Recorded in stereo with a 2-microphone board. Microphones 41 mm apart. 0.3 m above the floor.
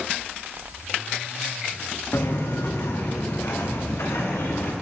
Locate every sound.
2.1 s footsteps: 80° left, 3 m; by 4.7 s 70° left (ahead or behind), 3 m